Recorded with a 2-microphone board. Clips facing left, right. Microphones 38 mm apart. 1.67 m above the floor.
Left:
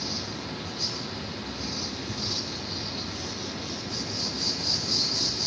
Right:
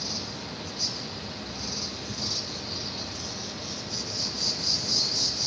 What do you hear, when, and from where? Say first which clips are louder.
0.0 s an insect: left 2 dB; 40° left (ahead or behind), 3.5 m